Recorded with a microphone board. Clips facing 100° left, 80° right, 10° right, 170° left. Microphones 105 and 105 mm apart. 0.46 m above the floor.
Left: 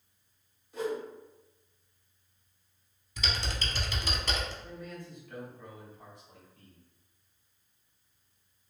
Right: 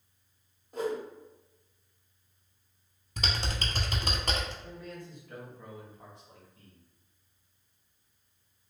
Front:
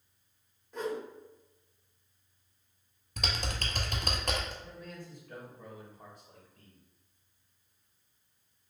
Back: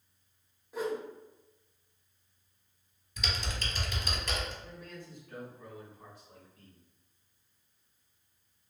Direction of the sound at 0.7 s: 110° right.